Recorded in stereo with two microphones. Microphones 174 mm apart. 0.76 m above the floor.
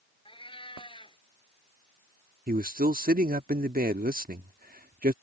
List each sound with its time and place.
0.2 s a cat meowing: 30° left (ahead or behind)
2.5 s a man speaking: 55° right (ahead or behind)